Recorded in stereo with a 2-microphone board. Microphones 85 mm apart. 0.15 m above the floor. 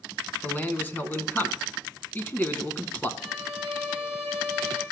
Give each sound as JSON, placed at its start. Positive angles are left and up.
{"t": 0.4, "sound": "a man speaking", "side_deg": 20, "distance_m": 1.0}
{"t": 3.2, "sound": "a violin", "side_deg": 25, "distance_m": 2.5}